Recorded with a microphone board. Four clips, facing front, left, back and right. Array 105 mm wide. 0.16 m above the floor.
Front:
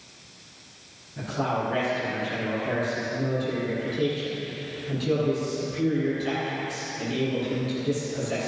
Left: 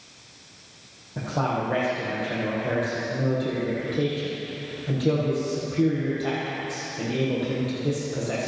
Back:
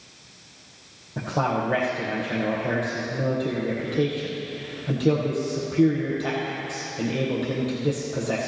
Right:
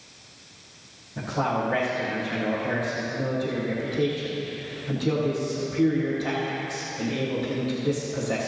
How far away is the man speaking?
About 5 m.